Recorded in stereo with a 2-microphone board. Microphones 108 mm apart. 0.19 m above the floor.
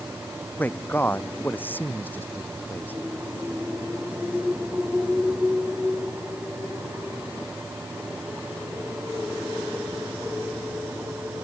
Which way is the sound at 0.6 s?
15° left (ahead or behind).